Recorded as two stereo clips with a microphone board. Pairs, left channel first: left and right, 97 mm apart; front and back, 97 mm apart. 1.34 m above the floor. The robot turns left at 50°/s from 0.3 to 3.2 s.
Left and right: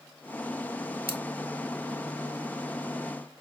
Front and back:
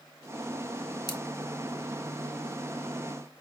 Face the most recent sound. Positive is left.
turn(degrees=-130)